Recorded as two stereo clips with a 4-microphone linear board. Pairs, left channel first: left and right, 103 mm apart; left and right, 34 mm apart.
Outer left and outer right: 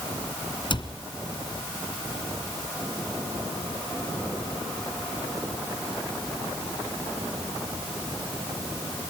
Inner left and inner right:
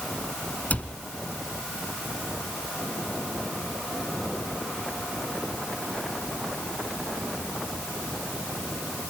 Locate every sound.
0.7 s a cupboard door: 50° left (ahead or behind), 1.8 m